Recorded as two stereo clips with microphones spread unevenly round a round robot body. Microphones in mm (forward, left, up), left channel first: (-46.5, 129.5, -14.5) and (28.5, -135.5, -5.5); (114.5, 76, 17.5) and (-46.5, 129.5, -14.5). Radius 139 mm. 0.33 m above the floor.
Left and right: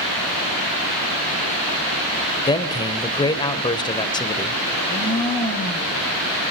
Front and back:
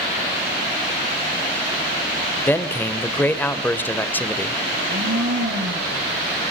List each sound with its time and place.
2.5 s a man speaking: 70° left, 1.4 m
4.7 s a blender: 170° right, 5 m